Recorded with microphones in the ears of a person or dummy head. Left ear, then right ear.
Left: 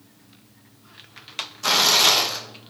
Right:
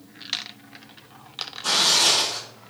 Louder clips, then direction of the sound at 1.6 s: Left 2 dB; 65° left (ahead or behind).